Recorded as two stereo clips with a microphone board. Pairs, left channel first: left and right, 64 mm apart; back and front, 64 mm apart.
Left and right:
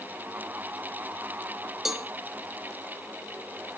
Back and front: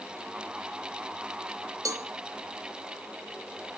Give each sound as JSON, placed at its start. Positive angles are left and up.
{"t": 1.9, "sound": "a cowbell", "azimuth_deg": -5, "distance_m": 1.1}